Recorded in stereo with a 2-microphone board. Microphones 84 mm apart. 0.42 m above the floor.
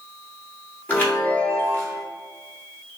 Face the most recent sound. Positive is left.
turn(degrees=20)  # may be behind; listen again after turning